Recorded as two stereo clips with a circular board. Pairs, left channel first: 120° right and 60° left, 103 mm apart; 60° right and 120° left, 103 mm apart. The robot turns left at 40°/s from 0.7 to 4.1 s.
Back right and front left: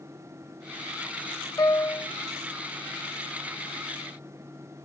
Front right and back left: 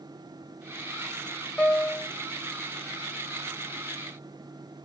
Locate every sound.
1.6 s a piano: 135° right, 1.5 m; by 2.1 s 155° right, 1.5 m